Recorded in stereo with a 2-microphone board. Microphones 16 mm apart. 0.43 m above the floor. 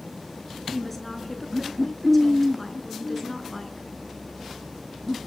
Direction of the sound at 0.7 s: 10° left (ahead or behind).